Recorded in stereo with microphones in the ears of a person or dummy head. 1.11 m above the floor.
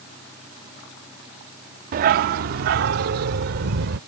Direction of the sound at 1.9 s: 45° right (ahead or behind).